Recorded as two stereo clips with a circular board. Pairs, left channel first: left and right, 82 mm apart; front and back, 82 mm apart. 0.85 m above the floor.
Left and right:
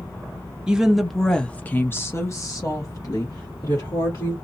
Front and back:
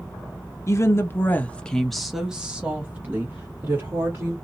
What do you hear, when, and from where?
0.7 s a woman speaking: 15° right, 0.8 m; by 4.3 s 125° left, 1.7 m